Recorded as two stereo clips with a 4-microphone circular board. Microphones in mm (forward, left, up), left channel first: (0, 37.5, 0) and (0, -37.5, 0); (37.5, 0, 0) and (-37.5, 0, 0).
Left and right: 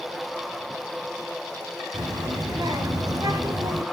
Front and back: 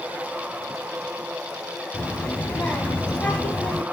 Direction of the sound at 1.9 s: 75° right.